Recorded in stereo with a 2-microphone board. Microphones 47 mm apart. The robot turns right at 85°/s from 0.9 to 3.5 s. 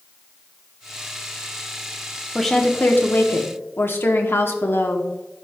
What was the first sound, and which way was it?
A woman speaking, 5° right.